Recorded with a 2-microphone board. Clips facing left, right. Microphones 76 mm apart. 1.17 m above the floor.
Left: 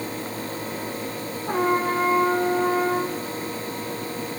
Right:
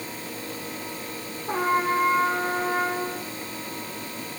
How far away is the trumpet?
About 7 m.